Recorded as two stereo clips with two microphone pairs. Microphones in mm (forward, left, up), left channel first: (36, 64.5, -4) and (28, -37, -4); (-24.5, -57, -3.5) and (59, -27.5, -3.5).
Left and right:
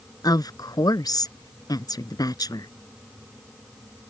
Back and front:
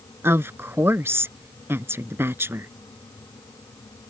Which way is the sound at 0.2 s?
65° left.